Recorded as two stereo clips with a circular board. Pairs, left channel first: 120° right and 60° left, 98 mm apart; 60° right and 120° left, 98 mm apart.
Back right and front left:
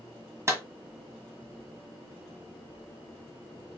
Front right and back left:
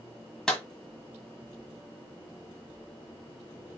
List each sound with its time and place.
0.5 s a clap: 25° left, 1.5 m